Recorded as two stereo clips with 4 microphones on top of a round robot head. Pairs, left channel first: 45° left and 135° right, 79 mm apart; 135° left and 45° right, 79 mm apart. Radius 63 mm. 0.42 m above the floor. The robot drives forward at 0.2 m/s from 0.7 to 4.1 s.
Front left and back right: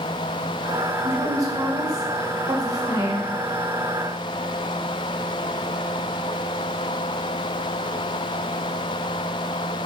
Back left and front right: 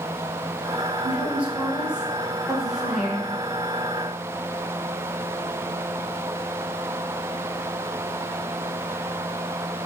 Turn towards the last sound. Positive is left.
turn(degrees=-140)